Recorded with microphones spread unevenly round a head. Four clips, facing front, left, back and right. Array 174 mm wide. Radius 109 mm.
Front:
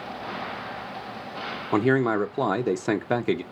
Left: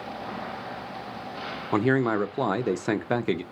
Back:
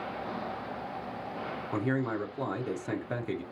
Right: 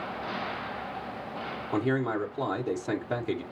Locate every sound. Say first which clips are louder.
1.7 s a man speaking: left 5 dB, front 10 dB; 20° left, 0.5 m